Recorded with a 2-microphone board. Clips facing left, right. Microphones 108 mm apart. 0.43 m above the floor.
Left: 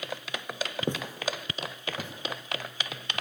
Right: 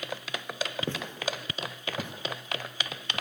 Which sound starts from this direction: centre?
Footsteps, at 0.9 s.